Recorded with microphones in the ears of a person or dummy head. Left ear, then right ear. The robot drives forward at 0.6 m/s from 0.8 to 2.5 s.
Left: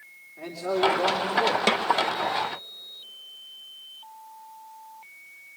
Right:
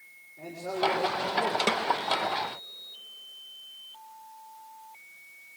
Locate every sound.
0.4 s a man speaking: 45° left (ahead or behind), 3 m; by 1.6 s 50° left (ahead or behind), 2.5 m
1.7 s a snare drum: 15° left (ahead or behind), 0.7 m